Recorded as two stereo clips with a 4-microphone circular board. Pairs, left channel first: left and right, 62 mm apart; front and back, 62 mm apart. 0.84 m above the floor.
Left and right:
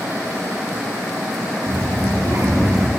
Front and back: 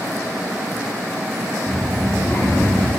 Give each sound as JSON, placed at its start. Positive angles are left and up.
{"t": 1.7, "sound": "a child speaking", "azimuth_deg": -55, "distance_m": 0.6}